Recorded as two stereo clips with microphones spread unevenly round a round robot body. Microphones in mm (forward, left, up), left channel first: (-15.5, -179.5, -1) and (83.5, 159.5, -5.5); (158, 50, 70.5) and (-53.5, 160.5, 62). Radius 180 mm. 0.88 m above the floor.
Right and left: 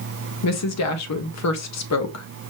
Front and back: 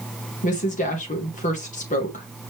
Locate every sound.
0.4 s a woman speaking: 80° right, 1.2 m